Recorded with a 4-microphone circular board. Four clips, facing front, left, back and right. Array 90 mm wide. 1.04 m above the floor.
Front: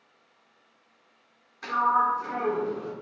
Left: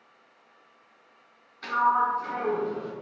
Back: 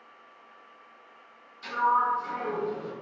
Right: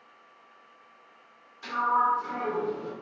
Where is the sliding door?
30° left, 1.2 m.